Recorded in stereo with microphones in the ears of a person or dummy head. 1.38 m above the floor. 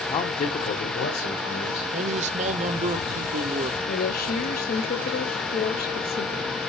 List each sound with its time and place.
0.1 s a man speaking: 20° left (ahead or behind), 0.8 m; by 1.9 s 60° left (ahead or behind), 1.9 m
1.9 s a man speaking: 40° right (ahead or behind), 0.6 m
3.9 s a woman speaking: 45° left (ahead or behind), 0.7 m